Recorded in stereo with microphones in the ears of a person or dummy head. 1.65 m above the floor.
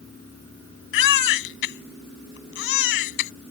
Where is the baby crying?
75° left (ahead or behind).